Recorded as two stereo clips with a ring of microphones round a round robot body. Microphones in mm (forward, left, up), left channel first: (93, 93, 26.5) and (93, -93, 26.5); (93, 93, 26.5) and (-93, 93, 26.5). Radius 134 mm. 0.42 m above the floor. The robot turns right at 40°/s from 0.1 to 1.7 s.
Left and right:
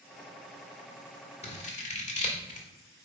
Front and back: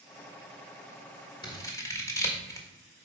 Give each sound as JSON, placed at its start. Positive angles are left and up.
{"t": 1.4, "sound": "scissors", "azimuth_deg": 55, "distance_m": 1.7}